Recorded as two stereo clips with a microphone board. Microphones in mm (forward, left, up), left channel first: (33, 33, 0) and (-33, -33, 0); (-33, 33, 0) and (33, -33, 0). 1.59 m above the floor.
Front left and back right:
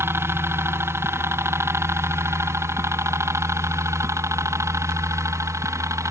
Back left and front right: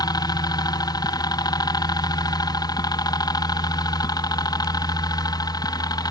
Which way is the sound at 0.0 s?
170° left.